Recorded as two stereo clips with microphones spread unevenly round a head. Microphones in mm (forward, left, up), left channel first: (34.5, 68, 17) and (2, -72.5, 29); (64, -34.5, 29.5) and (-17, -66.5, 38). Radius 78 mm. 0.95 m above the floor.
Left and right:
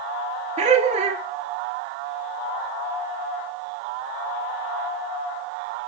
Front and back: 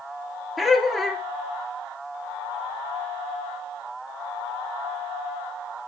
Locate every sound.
0.6 s laughter: 65° right, 0.6 m